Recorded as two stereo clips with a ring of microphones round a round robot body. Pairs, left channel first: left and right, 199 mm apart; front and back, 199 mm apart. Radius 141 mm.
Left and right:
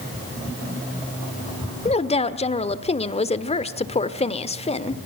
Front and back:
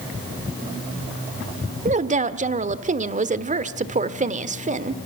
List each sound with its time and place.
1.9 s a woman speaking: 140° left, 1.5 m